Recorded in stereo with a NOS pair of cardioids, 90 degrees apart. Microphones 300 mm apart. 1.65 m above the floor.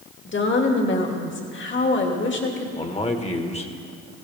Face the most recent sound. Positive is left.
turn(degrees=20)